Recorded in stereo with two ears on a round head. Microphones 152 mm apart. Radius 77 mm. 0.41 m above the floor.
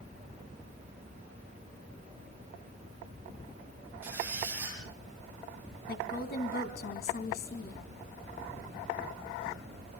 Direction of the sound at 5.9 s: 65° left (ahead or behind).